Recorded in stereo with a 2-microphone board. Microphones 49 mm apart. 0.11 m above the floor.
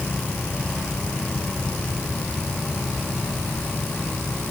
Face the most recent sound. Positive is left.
No sound to turn to.